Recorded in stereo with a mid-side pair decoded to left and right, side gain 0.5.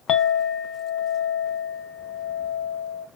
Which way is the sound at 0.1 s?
60° left.